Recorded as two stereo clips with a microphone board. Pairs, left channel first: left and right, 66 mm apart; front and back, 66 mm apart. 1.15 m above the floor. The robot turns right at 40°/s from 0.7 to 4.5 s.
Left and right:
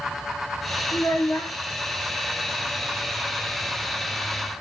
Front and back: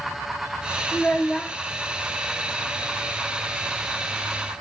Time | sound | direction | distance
0.9 | a child speaking | 55° left | 1.3 m